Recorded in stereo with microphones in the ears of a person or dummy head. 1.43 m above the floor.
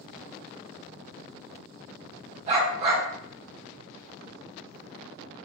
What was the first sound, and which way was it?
A dog barking, 40° right (ahead or behind).